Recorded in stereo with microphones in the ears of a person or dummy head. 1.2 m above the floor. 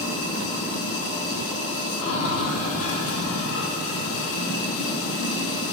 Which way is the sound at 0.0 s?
75° left (ahead or behind).